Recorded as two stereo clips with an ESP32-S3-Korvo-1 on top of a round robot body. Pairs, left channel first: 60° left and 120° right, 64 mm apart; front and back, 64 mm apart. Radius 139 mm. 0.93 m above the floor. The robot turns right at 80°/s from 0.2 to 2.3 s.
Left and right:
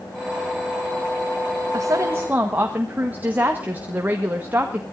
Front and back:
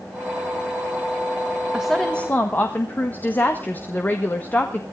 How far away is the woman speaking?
About 1.9 m.